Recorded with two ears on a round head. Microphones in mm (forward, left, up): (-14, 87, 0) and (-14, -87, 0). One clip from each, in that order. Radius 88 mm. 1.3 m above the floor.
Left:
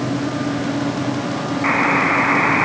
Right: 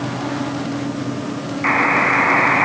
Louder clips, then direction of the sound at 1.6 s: Right 1 dB; 15° right (ahead or behind).